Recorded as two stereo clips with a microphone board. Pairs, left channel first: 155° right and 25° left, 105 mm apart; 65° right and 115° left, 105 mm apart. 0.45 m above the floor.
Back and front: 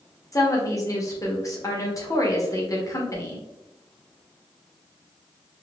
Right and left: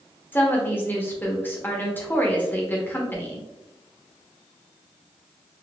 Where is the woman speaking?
125° right, 0.9 m.